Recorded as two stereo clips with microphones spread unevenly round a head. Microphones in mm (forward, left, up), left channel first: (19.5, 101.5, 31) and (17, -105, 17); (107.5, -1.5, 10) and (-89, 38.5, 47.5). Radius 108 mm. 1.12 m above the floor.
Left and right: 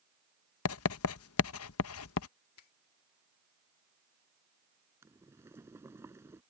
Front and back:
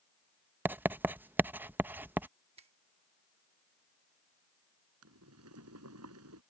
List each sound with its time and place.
0.7 s writing: 95° left
2.6 s a finger snap: 105° left
5.0 s boiling: 170° right